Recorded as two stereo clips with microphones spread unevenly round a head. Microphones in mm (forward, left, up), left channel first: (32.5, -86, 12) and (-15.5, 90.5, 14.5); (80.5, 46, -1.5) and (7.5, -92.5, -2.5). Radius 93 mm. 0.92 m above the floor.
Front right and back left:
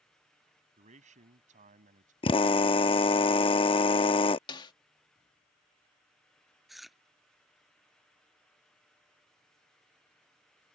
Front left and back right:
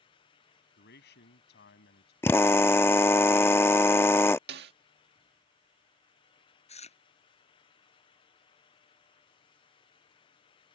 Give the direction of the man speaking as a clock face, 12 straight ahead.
10 o'clock.